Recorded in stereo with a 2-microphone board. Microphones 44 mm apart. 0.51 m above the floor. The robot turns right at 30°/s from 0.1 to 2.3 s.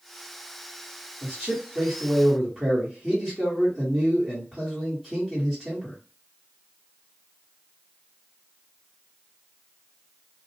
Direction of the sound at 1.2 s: 10° right (ahead or behind).